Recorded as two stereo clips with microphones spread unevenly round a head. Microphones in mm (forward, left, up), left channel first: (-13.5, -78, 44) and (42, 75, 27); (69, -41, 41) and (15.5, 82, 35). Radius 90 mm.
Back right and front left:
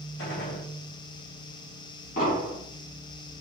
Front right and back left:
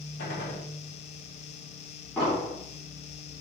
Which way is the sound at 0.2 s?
95° right.